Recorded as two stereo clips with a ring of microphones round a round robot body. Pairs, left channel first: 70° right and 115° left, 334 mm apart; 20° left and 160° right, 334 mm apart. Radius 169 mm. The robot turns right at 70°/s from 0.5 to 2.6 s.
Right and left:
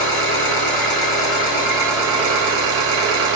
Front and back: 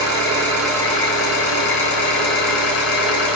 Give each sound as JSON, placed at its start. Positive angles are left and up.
{"t": 0.0, "sound": "an engine running", "azimuth_deg": -80, "distance_m": 1.2}